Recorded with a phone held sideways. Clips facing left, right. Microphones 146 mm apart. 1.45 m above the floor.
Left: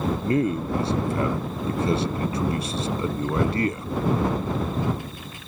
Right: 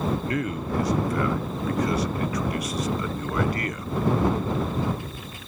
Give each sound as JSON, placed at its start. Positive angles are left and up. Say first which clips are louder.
{"t": 0.2, "sound": "a man speaking", "louder": "left 5 dB", "side_deg": 25}